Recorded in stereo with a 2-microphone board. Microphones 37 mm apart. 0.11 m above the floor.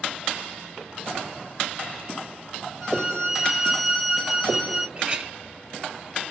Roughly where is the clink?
Right.